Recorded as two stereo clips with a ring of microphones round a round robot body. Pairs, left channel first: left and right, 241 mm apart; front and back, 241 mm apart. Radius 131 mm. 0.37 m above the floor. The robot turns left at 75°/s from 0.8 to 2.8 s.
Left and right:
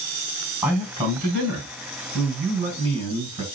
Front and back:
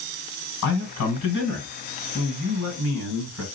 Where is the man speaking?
5° right, 3 m; by 3.4 s 155° right, 3 m.